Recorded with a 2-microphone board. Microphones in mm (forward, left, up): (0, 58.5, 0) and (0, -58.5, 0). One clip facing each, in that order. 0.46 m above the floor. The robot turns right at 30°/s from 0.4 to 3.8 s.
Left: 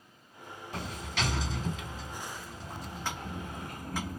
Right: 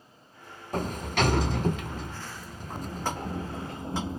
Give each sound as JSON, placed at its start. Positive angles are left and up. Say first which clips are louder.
{"t": 0.7, "sound": "a sliding door", "louder": "right 9 dB", "azimuth_deg": -125, "distance_m": 0.5}